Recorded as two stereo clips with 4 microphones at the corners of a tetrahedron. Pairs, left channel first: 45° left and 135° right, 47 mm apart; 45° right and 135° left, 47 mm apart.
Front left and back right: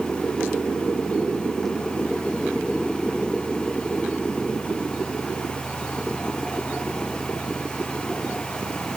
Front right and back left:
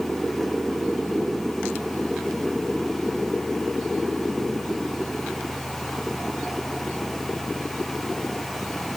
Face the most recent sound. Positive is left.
No sound to turn to.